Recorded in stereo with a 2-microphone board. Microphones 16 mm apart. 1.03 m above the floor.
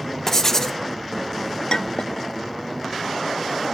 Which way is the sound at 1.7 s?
60° left (ahead or behind).